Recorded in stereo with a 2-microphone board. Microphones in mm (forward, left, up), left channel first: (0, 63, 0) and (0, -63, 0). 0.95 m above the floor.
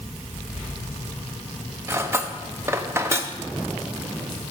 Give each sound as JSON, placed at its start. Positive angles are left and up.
{"t": 1.9, "sound": "cutlery clinking", "side_deg": -20, "distance_m": 0.6}